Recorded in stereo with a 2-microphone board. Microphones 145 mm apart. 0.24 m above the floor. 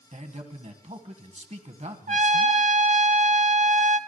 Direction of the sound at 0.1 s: 50° right (ahead or behind).